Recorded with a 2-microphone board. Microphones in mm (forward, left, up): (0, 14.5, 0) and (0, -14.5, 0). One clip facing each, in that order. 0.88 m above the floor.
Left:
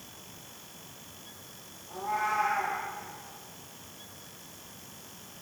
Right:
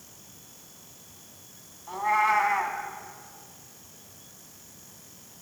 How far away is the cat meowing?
About 3 m.